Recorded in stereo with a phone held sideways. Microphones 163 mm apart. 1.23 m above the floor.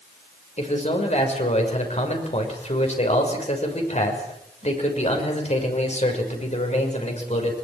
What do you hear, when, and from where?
0.6 s a man speaking: 45° left (ahead or behind), 6 m